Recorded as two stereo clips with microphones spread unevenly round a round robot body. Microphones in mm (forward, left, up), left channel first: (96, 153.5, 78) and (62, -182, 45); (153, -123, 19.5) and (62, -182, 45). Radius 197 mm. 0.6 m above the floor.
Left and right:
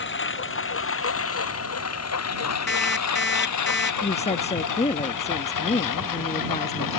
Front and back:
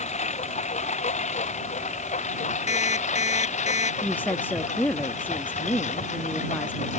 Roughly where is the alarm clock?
Ahead left.